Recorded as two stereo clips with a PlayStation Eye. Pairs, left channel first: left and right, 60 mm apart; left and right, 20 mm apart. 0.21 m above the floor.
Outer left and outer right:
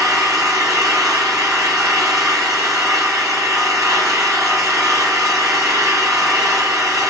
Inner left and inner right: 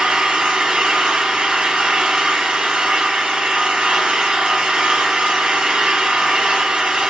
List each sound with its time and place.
0.0 s an engine running: 65° right (ahead or behind), 5.5 m